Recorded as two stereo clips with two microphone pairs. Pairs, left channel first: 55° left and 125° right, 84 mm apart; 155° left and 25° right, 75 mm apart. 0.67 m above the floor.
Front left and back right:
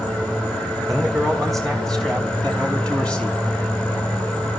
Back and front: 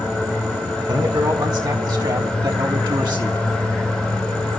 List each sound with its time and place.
0.9 s a man speaking: 35° right, 5.5 m; by 3.4 s 20° right, 5 m